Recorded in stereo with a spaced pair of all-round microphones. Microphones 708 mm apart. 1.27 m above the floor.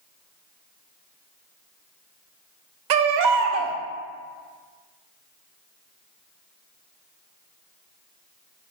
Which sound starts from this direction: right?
A baby crying, at 2.9 s.